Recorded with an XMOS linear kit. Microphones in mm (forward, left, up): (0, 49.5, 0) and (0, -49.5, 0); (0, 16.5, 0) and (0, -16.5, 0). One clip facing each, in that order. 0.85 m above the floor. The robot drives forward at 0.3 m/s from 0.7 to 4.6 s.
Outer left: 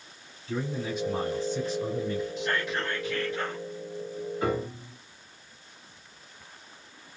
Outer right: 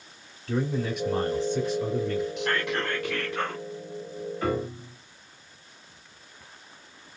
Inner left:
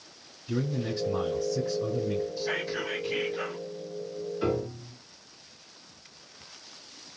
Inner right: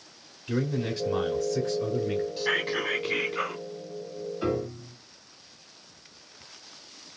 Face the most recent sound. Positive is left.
turn(degrees=15)  # may be behind; listen again after turning